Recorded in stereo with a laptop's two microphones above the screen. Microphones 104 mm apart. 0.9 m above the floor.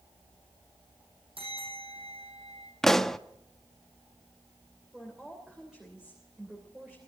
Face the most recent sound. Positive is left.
turn(degrees=-5)  # may be behind; listen again after turning